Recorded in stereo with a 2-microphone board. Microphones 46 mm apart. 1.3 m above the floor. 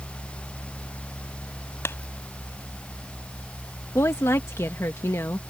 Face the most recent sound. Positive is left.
turn(degrees=90)